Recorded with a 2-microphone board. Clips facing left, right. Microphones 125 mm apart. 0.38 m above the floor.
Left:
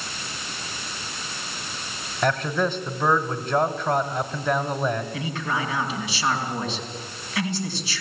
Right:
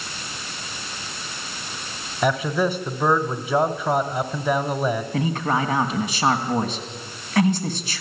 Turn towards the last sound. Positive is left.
turn(degrees=-45)  # may be behind; listen again after turning